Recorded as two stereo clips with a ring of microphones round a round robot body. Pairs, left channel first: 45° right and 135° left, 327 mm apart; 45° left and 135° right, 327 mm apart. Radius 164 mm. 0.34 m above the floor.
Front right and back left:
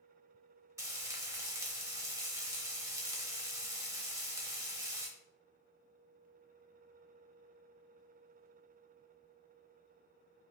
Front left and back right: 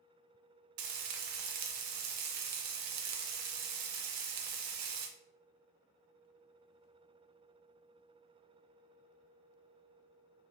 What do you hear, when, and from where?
0.8 s frying: 145° right, 0.6 m